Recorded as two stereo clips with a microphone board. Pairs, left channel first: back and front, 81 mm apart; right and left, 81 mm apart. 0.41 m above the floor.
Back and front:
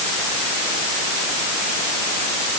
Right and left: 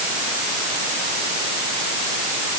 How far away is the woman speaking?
I don't hear a woman speaking.